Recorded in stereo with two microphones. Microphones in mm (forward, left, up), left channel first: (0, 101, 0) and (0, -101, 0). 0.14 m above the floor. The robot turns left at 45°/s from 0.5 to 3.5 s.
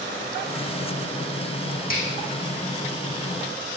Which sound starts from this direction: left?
A finger snap, at 1.9 s.